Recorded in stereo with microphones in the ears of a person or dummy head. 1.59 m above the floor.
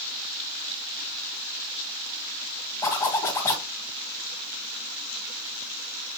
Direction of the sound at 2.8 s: 15° left (ahead or behind).